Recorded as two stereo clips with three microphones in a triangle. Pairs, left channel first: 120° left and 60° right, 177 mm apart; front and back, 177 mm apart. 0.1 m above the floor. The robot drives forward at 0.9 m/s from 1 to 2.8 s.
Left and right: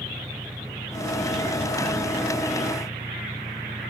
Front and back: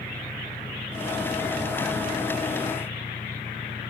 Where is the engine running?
10° right.